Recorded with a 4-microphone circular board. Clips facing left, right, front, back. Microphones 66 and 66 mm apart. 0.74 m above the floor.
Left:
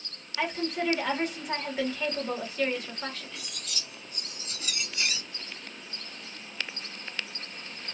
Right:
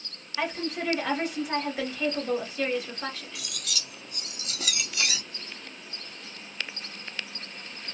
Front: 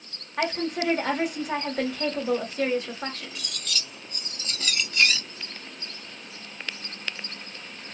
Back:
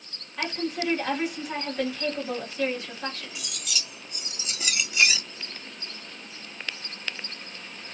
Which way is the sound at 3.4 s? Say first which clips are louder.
Right 2 dB, front 1 dB; 100° right.